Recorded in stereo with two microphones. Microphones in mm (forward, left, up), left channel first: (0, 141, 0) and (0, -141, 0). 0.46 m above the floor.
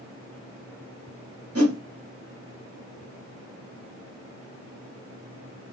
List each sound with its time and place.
1.6 s a whoosh: 55° right (ahead or behind), 0.8 m